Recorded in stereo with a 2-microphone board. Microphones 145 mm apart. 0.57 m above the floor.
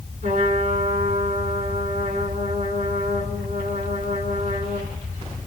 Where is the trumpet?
55° right (ahead or behind), 3.5 m.